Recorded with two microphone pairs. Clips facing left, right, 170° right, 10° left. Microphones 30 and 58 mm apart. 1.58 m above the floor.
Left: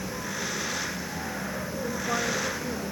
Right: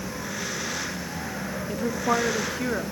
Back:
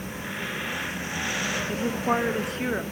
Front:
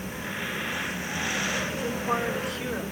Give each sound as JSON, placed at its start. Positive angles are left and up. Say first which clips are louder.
{"t": 1.7, "sound": "a woman speaking", "louder": "right 6 dB, back 3 dB", "azimuth_deg": -115, "distance_m": 1.9}